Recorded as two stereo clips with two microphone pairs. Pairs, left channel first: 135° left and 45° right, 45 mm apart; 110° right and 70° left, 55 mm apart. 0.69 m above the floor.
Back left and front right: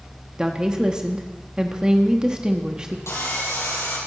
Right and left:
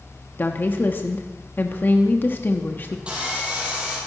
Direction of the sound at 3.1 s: 140° left.